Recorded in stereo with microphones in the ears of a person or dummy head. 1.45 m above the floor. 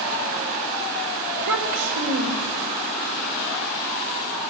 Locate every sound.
1.4 s a child speaking: 75° right (ahead or behind), 3.5 m